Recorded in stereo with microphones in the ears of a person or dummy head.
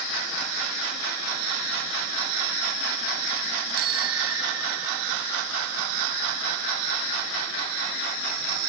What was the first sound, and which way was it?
A bicycle bell, 90° right.